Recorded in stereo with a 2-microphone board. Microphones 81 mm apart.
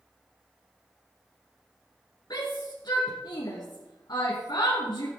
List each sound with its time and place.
2.3 s a shout: 55° left (ahead or behind), 2.5 m